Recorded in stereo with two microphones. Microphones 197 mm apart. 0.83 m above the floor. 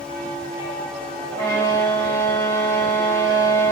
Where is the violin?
20° left (ahead or behind), 1.5 m.